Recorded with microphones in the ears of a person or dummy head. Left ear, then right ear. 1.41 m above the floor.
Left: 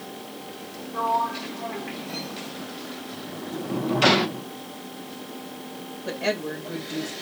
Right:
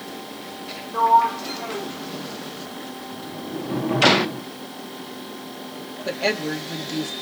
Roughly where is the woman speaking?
Right.